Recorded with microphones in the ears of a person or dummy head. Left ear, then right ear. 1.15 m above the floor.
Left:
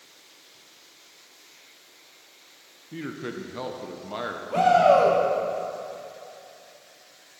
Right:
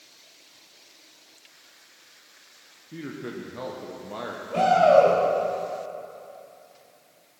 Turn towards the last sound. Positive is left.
turn(degrees=20)  # may be behind; listen again after turning